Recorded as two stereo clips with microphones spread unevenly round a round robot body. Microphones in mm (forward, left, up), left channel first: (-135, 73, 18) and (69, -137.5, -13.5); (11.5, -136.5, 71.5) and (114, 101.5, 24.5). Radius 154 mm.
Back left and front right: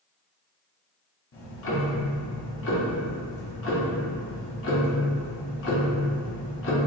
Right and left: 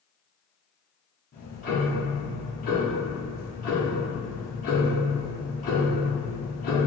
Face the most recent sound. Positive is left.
turn(degrees=180)